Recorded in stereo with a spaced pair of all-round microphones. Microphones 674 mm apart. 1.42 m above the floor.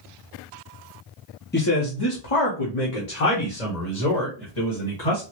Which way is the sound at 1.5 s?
15° left (ahead or behind).